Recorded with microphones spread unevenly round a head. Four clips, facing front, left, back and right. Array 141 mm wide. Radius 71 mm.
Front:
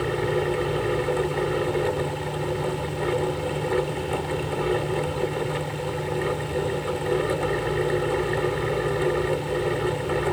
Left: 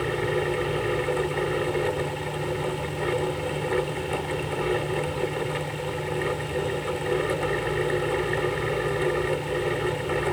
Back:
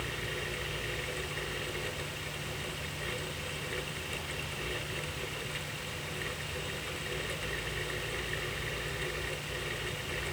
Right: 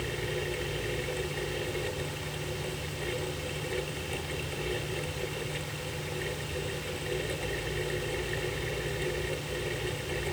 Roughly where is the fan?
Ahead left.